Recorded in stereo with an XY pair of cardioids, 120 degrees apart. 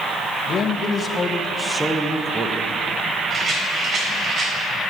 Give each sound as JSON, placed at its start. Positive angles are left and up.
{"t": 0.5, "sound": "a man speaking", "azimuth_deg": 50, "distance_m": 1.1}
{"t": 3.3, "sound": "a rattle", "azimuth_deg": -45, "distance_m": 3.5}